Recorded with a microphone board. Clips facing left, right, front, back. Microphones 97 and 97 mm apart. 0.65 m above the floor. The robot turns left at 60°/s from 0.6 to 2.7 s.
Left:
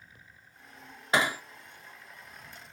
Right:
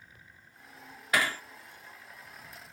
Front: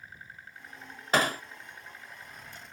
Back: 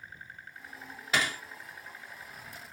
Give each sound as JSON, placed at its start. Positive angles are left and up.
{"t": 1.1, "sound": "hammering", "azimuth_deg": 30}